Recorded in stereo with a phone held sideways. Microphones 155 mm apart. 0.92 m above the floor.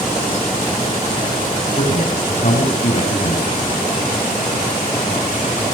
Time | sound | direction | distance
1.8 | a man speaking | 45° left (ahead or behind) | 6.5 m